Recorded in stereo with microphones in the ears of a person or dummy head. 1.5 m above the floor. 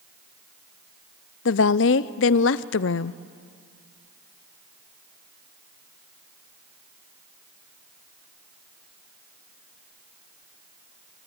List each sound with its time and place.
1.4 s a woman speaking: 60° left (ahead or behind), 0.7 m